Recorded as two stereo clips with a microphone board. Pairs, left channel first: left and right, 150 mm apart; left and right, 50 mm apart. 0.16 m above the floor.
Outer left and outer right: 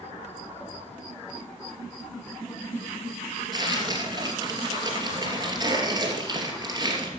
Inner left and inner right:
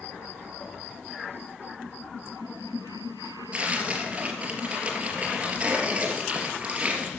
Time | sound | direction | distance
3.5 | tearing paper | 30° right (ahead or behind) | 3 m